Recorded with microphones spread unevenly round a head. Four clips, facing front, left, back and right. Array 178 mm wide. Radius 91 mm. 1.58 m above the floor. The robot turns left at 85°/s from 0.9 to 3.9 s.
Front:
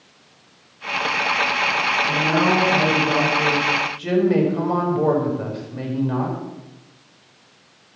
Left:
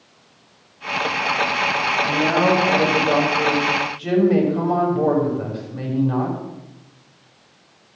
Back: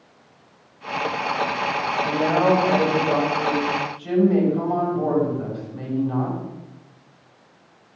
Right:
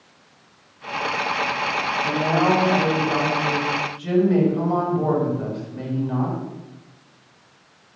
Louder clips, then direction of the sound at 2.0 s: Left 1 dB, back 2 dB; 175° right.